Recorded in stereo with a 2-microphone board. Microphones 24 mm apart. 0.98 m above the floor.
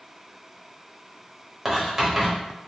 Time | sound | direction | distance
1.6 | writing | 15° right (ahead or behind) | 0.9 m